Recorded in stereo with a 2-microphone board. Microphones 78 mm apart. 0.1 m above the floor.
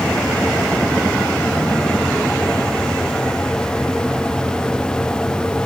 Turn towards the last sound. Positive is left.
No sound to turn to.